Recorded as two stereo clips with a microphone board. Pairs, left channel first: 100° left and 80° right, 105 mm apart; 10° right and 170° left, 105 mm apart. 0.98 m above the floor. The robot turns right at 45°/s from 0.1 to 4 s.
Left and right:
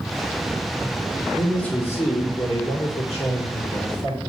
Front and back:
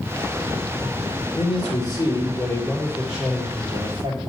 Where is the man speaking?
10° left, 2 m; by 4.2 s 130° left, 2 m.